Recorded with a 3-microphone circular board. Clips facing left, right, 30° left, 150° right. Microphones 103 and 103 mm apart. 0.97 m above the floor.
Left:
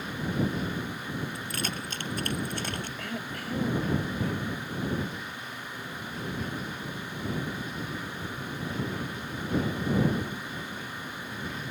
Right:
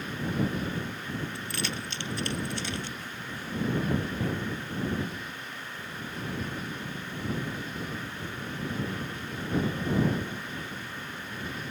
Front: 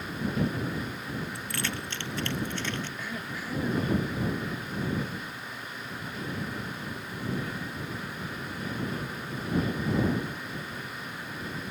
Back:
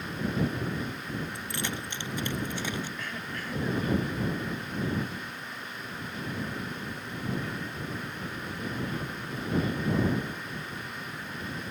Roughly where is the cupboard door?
I don't hear a cupboard door.